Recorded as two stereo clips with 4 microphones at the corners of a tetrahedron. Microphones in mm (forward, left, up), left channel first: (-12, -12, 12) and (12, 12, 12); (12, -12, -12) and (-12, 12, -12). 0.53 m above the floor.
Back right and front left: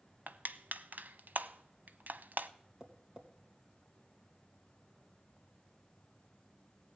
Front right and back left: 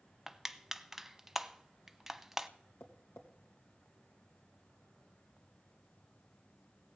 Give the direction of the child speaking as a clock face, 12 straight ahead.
I don't hear a child speaking.